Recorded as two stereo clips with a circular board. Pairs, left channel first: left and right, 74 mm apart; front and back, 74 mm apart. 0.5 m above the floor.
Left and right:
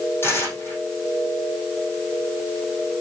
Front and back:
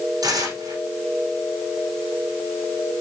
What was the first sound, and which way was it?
Tearing paper, 150° left.